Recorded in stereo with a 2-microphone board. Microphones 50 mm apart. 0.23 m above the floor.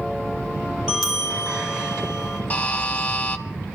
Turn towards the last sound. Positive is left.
turn(degrees=30)  # may be behind; listen again after turning